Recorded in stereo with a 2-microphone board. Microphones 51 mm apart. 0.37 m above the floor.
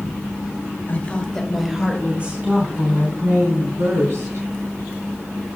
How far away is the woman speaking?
About 1.8 m.